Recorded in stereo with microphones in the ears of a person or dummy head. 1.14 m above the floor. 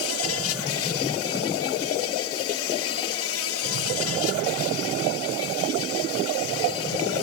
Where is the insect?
75° left (ahead or behind).